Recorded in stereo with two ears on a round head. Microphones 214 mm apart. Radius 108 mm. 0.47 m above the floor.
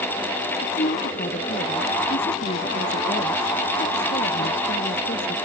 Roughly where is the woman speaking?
Left.